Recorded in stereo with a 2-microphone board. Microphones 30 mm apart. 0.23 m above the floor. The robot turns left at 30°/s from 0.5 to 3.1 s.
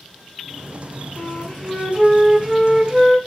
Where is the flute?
40° left, 0.9 m; by 3.2 s 20° right, 0.9 m.